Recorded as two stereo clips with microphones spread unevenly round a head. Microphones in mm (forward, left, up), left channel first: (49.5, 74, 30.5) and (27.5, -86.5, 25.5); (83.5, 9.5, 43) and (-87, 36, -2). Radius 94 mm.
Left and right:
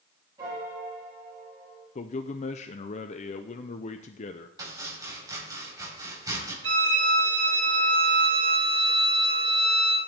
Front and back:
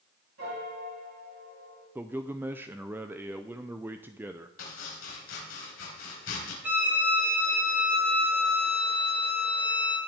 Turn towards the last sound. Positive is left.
turn(degrees=-100)